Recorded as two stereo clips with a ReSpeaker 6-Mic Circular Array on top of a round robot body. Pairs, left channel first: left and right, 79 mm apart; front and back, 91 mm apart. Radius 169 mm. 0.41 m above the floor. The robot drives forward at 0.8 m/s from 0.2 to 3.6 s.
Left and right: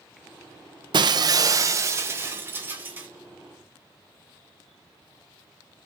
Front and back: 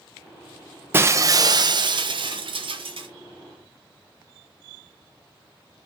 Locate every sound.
0.9 s breaking glass: 115° right, 0.9 m; by 3.1 s 160° right, 2 m